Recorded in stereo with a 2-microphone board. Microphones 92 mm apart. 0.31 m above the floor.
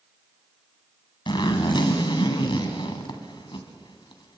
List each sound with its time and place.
1.3 s a zipper: 60° left (ahead or behind), 2 m